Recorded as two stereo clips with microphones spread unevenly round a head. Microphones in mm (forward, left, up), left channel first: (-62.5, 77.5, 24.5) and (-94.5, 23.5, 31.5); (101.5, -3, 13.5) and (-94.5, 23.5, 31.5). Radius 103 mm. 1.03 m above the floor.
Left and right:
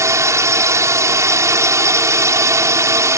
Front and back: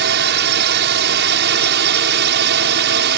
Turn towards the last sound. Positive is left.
turn(degrees=-155)